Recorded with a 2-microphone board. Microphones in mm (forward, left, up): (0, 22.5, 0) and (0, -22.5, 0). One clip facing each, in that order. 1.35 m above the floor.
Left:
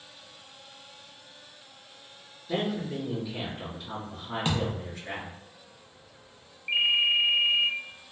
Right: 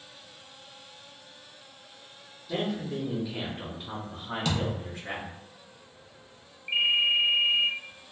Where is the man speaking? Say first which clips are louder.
Left 1 dB; 30° left (ahead or behind), 0.8 m; by 5.3 s 60° right (ahead or behind), 1.8 m.